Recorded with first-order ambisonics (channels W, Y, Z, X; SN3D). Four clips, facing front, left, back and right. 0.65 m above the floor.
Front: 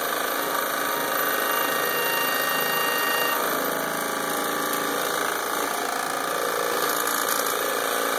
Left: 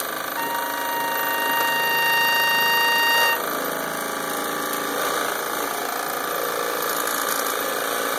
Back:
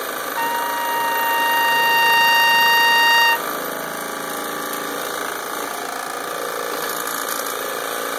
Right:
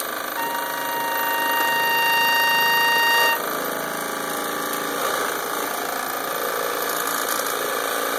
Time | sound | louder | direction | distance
0.4 | a trumpet | even, back 4 dB | straight behind | 0.5 m